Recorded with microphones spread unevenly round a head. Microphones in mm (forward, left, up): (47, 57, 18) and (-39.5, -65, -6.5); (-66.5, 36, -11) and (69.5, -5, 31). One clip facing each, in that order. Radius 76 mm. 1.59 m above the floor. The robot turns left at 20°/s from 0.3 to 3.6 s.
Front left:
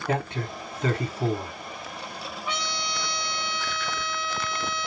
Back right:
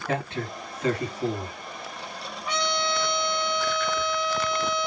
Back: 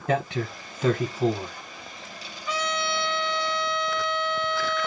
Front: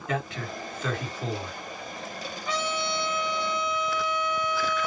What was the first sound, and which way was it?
A man speaking, 120° left.